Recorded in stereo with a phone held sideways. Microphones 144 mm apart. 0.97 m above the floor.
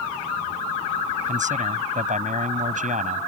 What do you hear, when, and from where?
1.3 s a man speaking: 60° right (ahead or behind)